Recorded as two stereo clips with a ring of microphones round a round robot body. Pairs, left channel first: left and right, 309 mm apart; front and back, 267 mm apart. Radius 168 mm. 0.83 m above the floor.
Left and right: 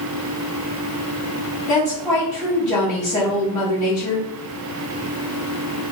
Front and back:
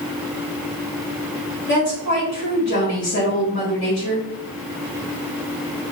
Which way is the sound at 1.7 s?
10° left.